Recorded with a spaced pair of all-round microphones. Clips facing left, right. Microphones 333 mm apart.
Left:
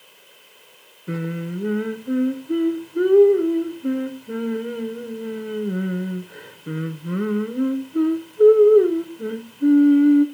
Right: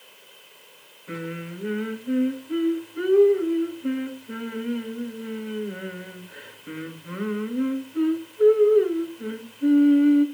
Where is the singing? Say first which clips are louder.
Left 5 dB; 60° left (ahead or behind), 0.7 m.